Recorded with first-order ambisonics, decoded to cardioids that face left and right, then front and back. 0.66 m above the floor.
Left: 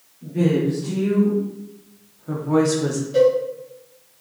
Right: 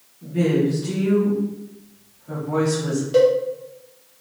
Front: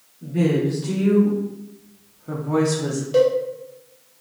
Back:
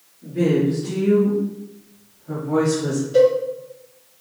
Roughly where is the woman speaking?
Ahead.